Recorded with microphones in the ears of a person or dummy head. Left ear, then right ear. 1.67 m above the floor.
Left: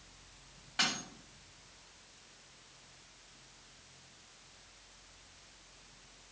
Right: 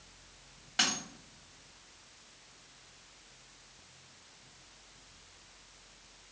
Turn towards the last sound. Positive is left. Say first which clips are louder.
# right 2 dB
turn(degrees=-10)  # may be behind; listen again after turning